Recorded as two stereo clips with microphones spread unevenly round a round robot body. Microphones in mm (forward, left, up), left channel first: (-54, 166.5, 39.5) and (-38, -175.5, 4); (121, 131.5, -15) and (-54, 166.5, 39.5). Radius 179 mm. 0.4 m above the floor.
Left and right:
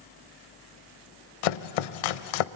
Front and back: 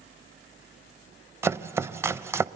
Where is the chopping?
90° left, 0.6 m.